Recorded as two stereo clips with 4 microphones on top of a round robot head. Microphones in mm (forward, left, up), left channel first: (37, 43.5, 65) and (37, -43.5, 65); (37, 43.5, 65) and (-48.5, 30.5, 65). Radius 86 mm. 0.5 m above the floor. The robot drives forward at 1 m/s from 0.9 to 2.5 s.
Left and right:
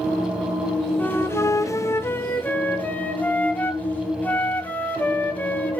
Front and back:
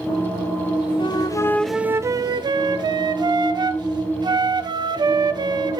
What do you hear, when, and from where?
1.0 s a flute: 25° left, 0.8 m; by 5.8 s 160° left, 1.0 m